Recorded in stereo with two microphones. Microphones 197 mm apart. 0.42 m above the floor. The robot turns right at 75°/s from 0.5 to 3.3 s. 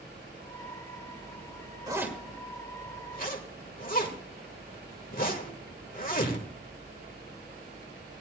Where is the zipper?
20° right (ahead or behind), 1.6 m; by 6.5 s 45° left (ahead or behind), 1.6 m.